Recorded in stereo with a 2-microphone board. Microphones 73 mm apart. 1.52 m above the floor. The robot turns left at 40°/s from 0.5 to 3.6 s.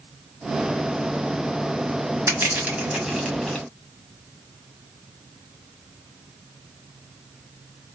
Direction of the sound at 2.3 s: 35° right (ahead or behind).